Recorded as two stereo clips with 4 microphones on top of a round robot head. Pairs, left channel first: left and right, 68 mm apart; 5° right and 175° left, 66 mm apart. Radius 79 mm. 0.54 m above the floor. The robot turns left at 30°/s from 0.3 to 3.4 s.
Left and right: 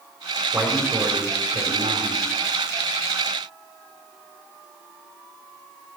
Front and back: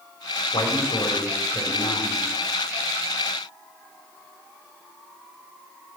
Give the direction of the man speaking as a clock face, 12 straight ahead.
12 o'clock.